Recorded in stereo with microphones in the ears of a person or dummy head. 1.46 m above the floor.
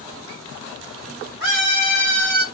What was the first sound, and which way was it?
A scream, 65° right (ahead or behind).